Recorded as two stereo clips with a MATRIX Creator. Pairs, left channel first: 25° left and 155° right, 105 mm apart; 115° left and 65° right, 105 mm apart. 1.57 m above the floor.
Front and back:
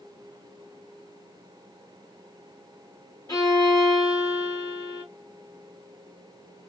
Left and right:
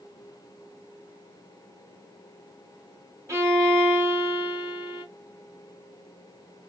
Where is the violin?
15° right, 1.8 m.